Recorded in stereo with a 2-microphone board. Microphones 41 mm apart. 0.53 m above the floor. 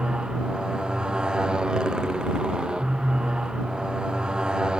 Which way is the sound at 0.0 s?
20° right (ahead or behind).